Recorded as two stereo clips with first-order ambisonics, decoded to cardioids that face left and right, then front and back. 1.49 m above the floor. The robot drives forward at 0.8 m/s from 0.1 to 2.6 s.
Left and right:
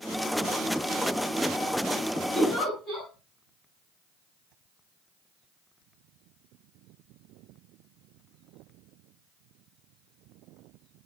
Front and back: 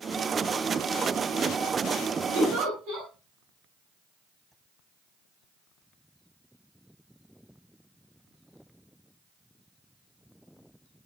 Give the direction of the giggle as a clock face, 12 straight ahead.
7 o'clock.